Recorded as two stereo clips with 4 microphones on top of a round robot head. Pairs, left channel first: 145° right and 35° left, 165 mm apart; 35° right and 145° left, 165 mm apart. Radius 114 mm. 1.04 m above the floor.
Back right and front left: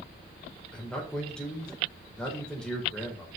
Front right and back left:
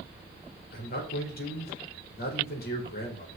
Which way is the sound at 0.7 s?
60° right.